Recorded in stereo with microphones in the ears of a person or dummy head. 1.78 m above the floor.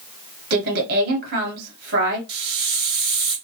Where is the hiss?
25° right (ahead or behind), 1.3 m.